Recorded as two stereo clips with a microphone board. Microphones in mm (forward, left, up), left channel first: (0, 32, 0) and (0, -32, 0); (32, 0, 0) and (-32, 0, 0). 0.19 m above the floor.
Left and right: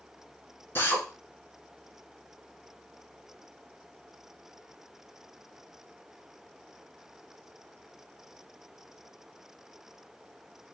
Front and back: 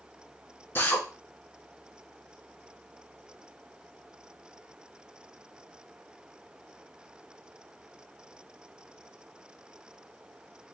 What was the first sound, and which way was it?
A drill, 45° left.